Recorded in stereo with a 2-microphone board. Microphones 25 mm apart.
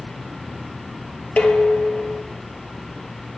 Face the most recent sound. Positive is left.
turn(degrees=60)  # may be behind; listen again after turning